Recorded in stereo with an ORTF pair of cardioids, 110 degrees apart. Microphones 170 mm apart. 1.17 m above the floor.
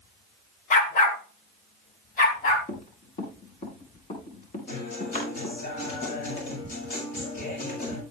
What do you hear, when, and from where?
0.7 s a dog barking: 50° left, 1.8 m; by 2.6 s 55° left, 4 m
2.7 s running footsteps: 45° left, 6 m
4.7 s a guitar: 60° left, 7.5 m